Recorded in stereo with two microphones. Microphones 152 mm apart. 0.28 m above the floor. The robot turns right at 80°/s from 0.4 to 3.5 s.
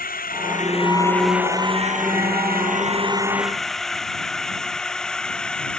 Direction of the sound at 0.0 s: 70° left (ahead or behind).